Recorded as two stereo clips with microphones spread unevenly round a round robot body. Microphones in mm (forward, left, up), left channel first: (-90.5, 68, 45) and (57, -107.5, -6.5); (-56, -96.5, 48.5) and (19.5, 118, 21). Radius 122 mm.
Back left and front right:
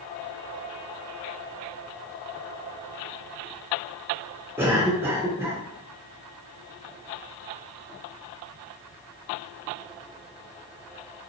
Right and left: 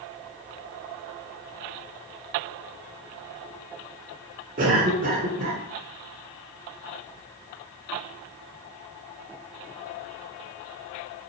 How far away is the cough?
About 1.9 m.